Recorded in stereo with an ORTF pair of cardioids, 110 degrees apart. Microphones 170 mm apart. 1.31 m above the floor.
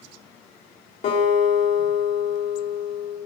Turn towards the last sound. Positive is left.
turn(degrees=45)